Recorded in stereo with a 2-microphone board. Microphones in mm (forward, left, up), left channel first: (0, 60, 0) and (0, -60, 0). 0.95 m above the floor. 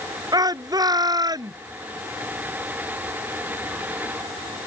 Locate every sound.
0.3 s a shout: 35° right (ahead or behind)